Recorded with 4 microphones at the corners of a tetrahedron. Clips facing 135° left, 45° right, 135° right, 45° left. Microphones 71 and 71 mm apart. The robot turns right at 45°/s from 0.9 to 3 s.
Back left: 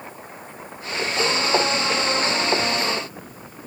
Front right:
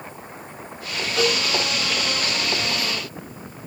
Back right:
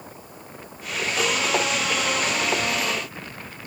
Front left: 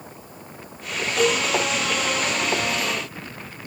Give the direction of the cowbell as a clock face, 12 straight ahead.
1 o'clock.